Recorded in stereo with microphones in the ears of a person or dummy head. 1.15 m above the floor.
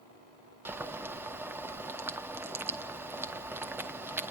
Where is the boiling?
5° right (ahead or behind), 0.9 m.